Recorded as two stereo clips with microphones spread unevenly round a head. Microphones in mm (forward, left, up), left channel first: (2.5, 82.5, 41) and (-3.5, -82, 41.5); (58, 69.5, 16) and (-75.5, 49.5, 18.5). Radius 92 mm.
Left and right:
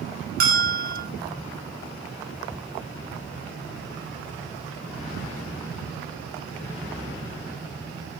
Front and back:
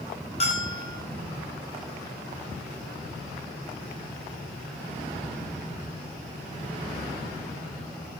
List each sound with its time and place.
0.4 s a bell: 55° right, 6.5 m